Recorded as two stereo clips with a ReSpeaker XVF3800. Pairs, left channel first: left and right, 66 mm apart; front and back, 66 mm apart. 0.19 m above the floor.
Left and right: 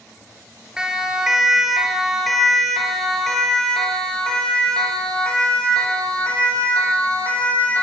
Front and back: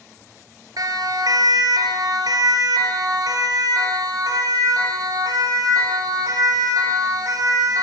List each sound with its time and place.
0.8 s a siren: 170° right, 4.5 m; by 7.8 s 160° left, 8.5 m